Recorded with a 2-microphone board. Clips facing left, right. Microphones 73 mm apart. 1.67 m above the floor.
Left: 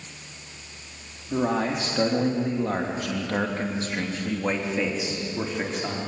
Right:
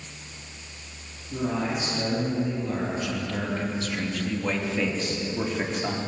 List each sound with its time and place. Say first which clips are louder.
1.3 s a man speaking: left 3 dB; 85° left, 4 m; by 6.0 s centre (ahead or behind), 4.5 m